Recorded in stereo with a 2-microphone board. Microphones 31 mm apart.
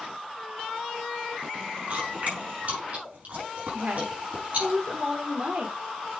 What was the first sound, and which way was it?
Chewing, 50° right (ahead or behind).